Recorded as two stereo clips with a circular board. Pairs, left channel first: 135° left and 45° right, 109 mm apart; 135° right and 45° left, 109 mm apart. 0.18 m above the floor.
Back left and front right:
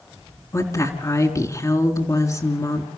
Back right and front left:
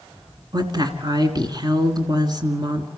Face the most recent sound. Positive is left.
turn(degrees=85)